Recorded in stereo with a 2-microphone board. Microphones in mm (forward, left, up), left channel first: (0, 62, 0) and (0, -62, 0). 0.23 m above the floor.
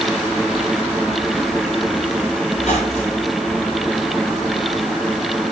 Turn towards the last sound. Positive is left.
turn(degrees=55)  # may be behind; listen again after turning